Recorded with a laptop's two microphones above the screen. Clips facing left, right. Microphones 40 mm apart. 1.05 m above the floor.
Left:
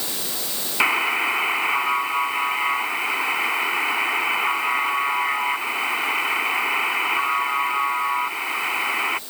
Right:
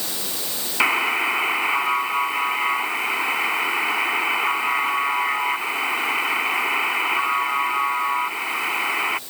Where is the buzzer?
Centre (ahead or behind).